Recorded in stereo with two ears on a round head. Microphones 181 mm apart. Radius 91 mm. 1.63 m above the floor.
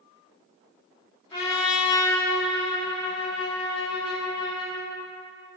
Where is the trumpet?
20° left (ahead or behind), 0.9 m.